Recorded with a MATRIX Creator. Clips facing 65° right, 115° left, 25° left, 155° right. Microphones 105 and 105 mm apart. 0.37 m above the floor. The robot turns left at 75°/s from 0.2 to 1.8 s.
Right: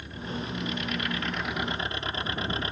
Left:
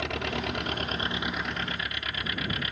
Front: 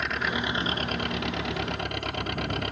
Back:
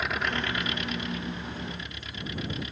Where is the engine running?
115° left; by 2.7 s 5° right.